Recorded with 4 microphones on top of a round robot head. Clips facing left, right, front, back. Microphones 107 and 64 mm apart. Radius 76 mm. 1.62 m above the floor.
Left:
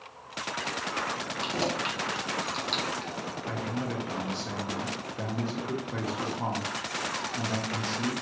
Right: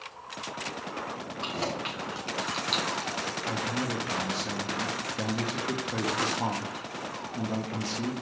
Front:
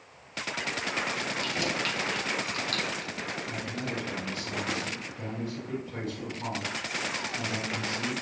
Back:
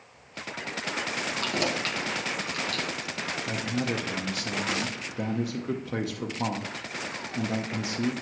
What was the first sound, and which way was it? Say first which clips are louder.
Keys jangling: left 2 dB, back 3 dB; 155° left.